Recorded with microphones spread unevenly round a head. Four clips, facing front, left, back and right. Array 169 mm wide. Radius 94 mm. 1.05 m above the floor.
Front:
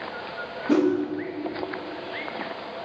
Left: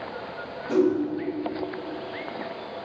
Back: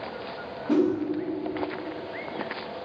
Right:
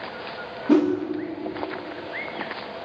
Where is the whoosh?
65° right, 1.9 m.